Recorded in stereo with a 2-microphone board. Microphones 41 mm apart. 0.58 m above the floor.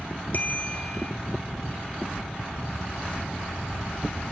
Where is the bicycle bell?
40° left (ahead or behind), 2.5 m.